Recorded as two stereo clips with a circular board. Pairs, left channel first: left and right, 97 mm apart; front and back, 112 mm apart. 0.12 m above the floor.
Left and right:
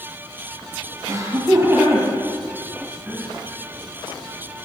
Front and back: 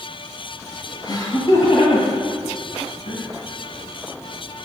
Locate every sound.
1.1 s laughter: 45° right, 2 m; by 3.2 s 5° right, 4 m